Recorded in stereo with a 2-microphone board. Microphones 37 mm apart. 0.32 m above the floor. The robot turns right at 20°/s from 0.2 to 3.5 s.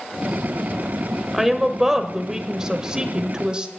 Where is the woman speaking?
5° right (ahead or behind), 1.0 m; by 3.7 s 25° right (ahead or behind), 1.0 m.